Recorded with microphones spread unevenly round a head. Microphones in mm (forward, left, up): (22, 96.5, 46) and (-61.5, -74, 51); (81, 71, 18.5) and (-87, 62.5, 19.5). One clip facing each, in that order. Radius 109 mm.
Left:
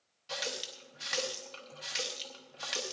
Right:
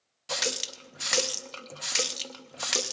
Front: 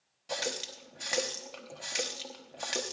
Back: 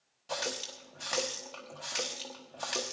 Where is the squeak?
No squeak in this recording.